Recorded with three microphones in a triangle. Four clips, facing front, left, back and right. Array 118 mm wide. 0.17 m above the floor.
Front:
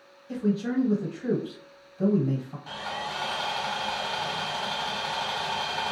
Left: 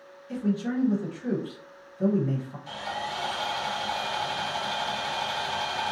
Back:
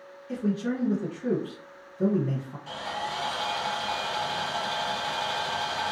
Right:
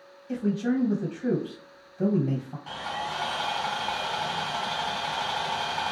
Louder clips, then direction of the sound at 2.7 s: Right 1 dB, back 2 dB; 65° right.